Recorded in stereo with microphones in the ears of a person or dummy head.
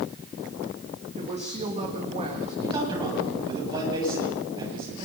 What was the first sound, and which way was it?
A woman speaking, 30° right (ahead or behind).